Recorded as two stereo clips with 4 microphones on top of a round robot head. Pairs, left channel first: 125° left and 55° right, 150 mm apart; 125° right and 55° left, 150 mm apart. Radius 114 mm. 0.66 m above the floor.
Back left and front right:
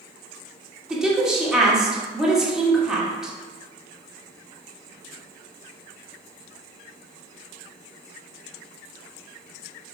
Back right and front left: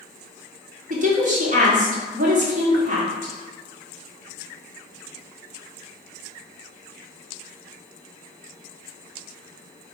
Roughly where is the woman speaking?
Ahead left.